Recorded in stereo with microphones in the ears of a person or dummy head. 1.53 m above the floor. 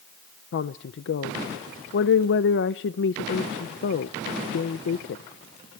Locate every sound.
0.5 s a woman speaking: 60° left (ahead or behind), 0.7 m